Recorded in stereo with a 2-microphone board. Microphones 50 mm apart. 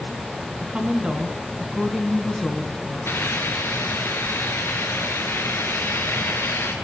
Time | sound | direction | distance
0.6 | a woman speaking | 25° right (ahead or behind) | 1.8 m
3.0 | a hiss | 55° left (ahead or behind) | 3 m